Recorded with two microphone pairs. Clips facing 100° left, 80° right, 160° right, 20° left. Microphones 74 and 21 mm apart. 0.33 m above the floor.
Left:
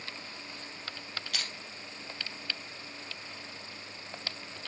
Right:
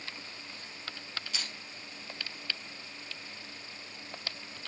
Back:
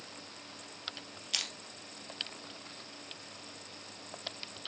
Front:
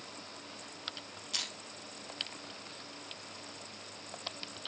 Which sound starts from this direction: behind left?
Crushing, at 1.3 s.